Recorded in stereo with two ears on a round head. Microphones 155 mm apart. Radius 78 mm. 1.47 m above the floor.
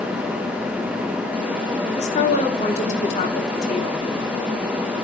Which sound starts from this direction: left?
A woman speaking, at 2.0 s.